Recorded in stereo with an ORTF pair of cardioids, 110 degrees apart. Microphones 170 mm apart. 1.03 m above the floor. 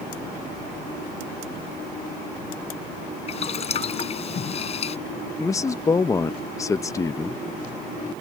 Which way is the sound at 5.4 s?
20° left.